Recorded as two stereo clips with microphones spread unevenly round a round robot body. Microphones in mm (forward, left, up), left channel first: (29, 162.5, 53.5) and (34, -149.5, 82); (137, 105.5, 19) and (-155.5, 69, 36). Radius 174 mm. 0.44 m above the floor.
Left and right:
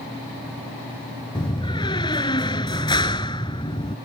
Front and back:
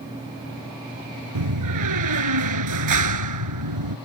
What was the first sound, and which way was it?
A door slam, 170° left.